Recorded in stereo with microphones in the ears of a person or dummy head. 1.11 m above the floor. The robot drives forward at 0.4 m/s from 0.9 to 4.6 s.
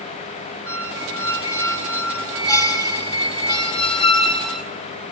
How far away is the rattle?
I don't hear a rattle.